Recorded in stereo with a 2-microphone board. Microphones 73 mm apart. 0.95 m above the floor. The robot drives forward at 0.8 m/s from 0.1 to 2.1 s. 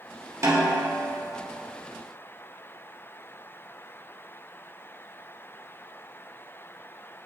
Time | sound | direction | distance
0.4 | a snare drum | 45° right (ahead or behind) | 1.4 m